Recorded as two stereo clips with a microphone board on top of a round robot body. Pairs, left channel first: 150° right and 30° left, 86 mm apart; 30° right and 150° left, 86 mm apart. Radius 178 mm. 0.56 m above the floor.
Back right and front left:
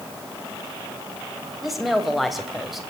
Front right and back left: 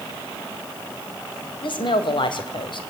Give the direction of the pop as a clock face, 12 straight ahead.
No pop in this recording.